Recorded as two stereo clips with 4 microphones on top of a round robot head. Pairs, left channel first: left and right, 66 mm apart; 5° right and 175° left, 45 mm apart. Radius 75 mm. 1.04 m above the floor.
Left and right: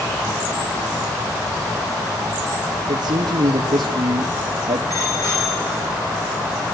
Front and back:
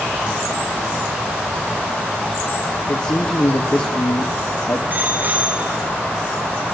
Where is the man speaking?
60° right, 1.6 m.